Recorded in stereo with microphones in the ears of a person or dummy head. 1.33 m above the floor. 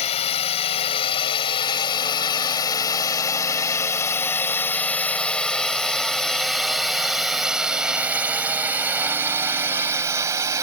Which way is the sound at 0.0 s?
35° left (ahead or behind).